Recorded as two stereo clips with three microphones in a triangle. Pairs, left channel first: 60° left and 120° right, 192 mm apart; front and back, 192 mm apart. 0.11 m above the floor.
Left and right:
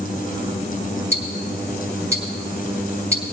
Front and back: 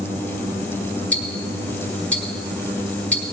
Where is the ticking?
70° right, 1.6 m.